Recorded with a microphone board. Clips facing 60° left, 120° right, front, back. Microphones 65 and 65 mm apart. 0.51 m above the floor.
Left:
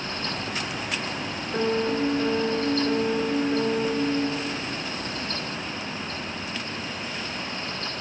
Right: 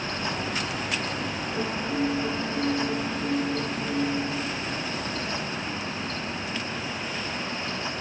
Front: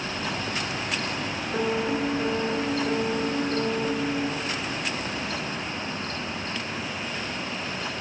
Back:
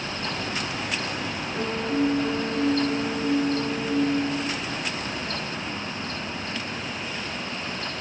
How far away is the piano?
About 0.6 m.